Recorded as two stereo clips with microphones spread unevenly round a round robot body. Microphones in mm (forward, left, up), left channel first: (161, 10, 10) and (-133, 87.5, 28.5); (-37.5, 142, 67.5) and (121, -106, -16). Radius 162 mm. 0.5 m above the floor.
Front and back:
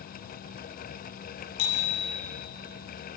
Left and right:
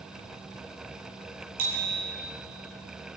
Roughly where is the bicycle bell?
Ahead.